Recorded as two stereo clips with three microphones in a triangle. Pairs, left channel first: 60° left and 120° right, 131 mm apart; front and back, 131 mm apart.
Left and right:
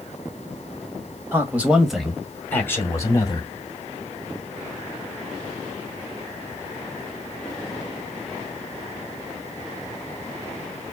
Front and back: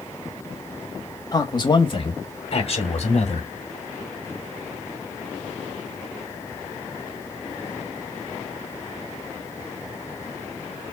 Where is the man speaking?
50° right, 1.9 m; by 3.5 s 10° left, 2.5 m.